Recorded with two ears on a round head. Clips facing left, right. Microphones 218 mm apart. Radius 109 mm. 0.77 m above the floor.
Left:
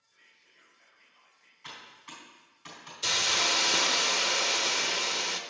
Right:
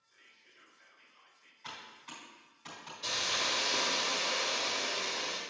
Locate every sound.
0.1 s whispering: 20° right (ahead or behind), 1.8 m
1.6 s typing on a keyboard: 15° left (ahead or behind), 3.5 m
3.0 s a hiss: 70° left (ahead or behind), 0.8 m